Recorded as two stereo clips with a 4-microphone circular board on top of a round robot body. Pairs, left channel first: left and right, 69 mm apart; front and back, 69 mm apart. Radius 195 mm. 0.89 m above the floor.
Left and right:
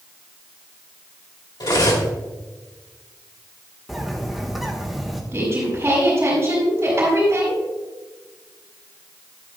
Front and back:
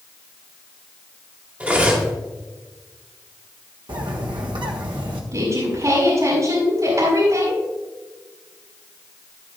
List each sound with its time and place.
1.6 s cutlery clinking: 110° left, 2.5 m
3.9 s a bird: 175° right, 1.3 m
5.3 s a woman speaking: 150° right, 5.5 m